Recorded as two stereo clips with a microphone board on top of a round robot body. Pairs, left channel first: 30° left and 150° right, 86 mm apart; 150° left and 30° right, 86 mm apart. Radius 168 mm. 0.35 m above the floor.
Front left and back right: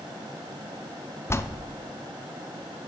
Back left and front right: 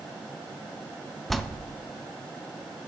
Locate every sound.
1.3 s a bell: 65° left, 0.8 m